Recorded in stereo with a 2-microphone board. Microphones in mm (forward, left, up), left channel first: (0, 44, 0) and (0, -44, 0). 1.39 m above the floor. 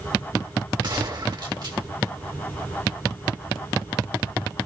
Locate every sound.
0.8 s a gunshot: 55° right (ahead or behind), 1.8 m